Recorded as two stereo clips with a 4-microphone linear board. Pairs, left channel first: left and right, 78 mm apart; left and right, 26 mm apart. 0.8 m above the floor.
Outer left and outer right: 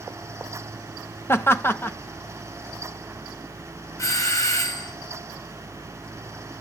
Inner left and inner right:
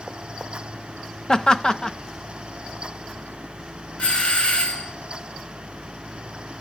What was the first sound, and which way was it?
Laughter, 30° left (ahead or behind).